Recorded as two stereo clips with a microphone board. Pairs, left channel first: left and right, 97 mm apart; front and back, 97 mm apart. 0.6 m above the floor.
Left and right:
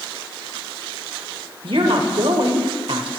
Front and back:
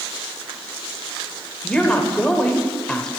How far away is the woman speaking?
About 2.5 m.